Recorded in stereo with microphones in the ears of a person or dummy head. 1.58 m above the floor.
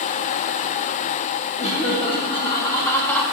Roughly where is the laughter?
Left.